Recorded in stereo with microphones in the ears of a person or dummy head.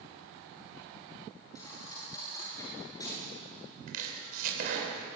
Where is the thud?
20° left (ahead or behind), 9.5 m.